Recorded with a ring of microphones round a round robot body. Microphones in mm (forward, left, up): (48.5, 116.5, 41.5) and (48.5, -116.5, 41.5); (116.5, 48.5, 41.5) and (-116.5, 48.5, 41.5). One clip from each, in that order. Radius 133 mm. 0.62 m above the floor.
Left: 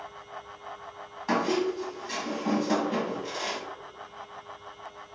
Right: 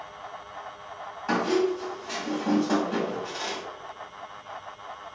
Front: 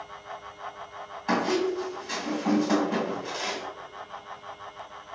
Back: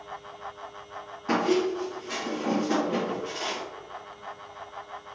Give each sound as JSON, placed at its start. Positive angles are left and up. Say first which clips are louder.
{"t": 1.3, "sound": "a squeak", "louder": "right 2 dB, back 1 dB", "azimuth_deg": 15, "distance_m": 1.9}